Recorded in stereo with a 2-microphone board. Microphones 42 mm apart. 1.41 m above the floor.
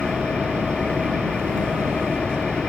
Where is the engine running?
20° left (ahead or behind).